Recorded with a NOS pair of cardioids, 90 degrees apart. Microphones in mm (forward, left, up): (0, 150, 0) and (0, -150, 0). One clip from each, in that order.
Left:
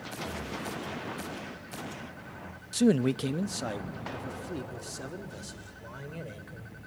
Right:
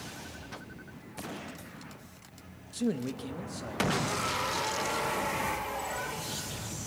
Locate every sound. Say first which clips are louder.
2.7 s a man speaking: left 8 dB; 40° left, 0.6 m; by 6.8 s 70° left, 4 m